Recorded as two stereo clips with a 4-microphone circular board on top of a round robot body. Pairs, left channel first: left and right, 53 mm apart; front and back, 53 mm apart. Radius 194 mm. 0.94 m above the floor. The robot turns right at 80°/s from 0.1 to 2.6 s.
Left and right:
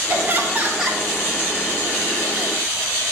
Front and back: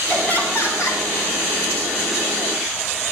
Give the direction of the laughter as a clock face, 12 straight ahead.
2 o'clock.